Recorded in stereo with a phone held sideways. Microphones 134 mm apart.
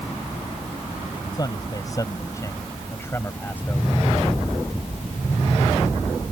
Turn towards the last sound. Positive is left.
turn(degrees=10)  # may be behind; listen again after turning